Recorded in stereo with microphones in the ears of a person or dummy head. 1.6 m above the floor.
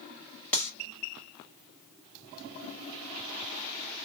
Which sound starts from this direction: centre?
Cutlery clinking, at 0.5 s.